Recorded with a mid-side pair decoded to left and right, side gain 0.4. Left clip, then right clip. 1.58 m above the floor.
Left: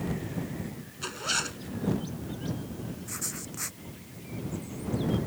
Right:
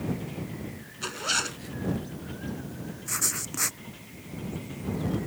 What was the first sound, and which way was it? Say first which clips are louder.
A zipper: right 2 dB; 20° right.